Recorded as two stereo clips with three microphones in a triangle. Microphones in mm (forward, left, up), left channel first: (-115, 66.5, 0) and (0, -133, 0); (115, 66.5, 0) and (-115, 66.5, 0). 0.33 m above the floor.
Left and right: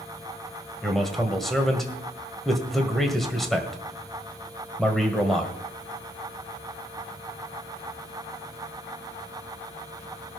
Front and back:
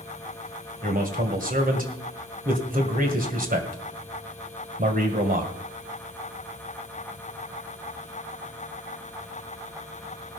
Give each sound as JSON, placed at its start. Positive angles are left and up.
{"t": 0.8, "sound": "a man speaking", "azimuth_deg": -150, "distance_m": 1.9}